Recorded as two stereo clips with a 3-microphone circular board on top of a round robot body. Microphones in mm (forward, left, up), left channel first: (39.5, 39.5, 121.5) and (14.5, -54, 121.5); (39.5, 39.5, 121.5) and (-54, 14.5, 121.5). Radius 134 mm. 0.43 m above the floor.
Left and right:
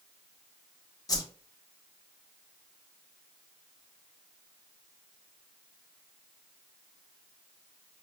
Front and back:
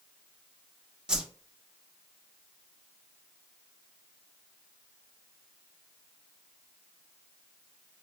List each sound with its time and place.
1.1 s a whoosh: 115° left, 1.0 m